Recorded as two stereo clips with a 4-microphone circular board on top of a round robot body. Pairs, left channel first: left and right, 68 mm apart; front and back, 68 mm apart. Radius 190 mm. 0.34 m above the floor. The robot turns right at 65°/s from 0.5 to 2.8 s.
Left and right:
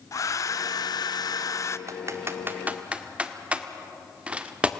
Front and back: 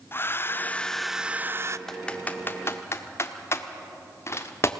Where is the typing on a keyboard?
85° right, 1.5 m; by 4.7 s 25° right, 1.5 m.